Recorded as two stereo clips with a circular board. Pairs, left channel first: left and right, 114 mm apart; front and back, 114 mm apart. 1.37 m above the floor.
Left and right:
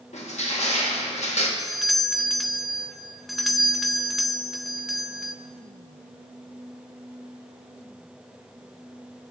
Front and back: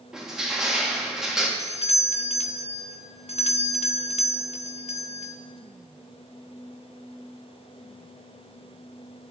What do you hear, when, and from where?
0.1 s crushing: 95° left, 1.5 m
1.6 s a doorbell: straight ahead, 0.5 m